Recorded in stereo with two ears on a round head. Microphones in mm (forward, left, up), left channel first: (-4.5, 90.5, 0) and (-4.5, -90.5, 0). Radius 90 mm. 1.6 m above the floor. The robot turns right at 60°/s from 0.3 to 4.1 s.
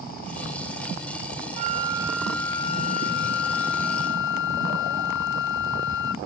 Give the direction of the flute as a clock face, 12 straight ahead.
1 o'clock.